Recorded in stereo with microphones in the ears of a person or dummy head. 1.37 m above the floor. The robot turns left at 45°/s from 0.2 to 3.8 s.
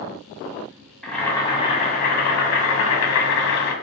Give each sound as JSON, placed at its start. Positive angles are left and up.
{"t": 1.0, "sound": "boiling", "azimuth_deg": 180, "distance_m": 1.1}